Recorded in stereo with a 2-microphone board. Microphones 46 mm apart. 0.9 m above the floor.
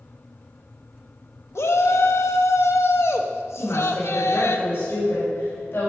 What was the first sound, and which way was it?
A shout, 70° left (ahead or behind).